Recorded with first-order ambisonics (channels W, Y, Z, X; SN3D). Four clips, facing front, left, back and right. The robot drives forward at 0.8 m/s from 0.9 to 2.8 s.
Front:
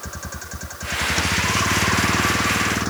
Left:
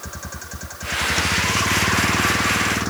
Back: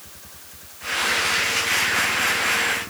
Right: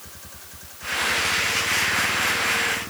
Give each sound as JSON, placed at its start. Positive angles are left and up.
{"t": 0.0, "sound": "a vehicle", "azimuth_deg": 40}